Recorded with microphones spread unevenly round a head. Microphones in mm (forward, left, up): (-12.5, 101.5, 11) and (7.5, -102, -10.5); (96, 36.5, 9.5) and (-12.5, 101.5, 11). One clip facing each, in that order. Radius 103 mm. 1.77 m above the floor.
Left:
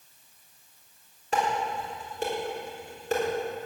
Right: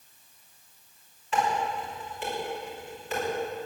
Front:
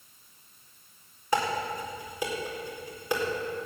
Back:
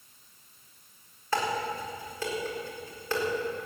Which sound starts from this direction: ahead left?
Dishes clattering, at 1.3 s.